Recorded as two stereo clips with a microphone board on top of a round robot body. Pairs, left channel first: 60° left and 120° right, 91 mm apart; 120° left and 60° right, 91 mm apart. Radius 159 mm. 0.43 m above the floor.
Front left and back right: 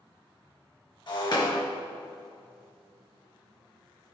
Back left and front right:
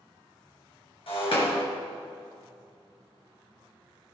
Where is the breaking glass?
100° left, 2.5 m.